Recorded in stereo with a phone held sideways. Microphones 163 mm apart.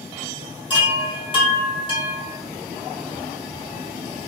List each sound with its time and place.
0.7 s a chime: 30° left (ahead or behind), 0.9 m